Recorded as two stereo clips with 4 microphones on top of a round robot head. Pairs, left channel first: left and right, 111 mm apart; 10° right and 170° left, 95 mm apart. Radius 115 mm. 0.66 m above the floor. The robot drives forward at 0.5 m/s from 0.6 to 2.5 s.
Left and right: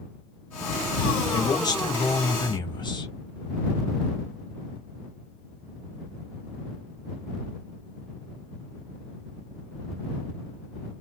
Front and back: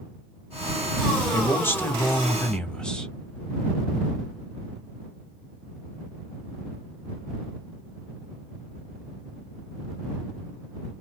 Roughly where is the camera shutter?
I don't hear a camera shutter.